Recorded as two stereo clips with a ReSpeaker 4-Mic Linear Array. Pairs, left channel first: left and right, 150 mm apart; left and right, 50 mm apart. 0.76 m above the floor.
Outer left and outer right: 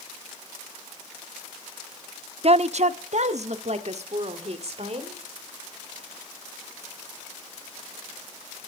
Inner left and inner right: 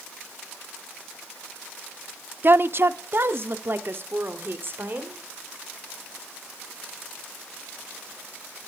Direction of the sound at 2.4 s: 45° right (ahead or behind).